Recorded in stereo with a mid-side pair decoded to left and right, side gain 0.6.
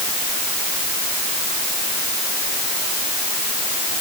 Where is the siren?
I don't hear a siren.